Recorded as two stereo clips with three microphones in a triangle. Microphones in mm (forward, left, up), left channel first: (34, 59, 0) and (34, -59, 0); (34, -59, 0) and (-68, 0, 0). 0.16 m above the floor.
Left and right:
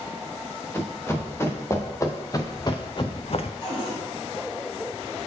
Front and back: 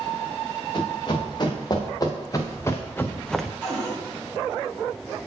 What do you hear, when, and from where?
0.7 s running footsteps: 20° left, 2.5 m; by 3.5 s 60° left, 0.6 m
3.6 s a cupboard door: 50° left, 2.5 m